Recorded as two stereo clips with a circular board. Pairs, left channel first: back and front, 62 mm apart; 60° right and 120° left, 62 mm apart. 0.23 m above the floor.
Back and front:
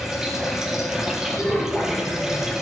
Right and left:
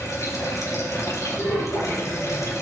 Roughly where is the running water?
Right.